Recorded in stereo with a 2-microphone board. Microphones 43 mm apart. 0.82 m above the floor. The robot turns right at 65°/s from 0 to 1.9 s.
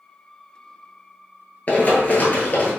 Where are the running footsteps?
40° left (ahead or behind), 0.9 m; by 2.7 s 35° left (ahead or behind), 1.1 m.